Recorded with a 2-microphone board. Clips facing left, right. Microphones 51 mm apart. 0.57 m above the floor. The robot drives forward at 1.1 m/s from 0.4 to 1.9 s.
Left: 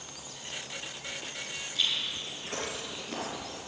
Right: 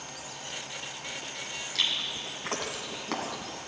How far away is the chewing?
About 2 m.